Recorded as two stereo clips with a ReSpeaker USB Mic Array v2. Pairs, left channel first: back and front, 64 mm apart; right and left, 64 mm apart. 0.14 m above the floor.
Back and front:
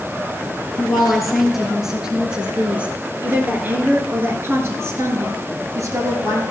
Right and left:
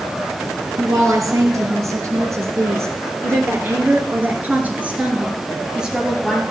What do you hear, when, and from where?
0.8 s a woman speaking: 95° left, 2.5 m; by 6.4 s 5° left, 2.5 m